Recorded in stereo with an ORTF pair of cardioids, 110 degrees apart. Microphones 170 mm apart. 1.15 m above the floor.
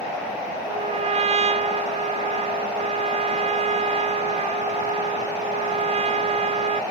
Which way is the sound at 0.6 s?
40° right.